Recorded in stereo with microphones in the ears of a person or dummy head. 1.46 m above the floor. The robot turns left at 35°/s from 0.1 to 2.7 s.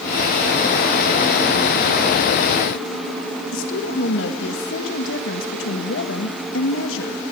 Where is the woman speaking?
75° left (ahead or behind), 2 m.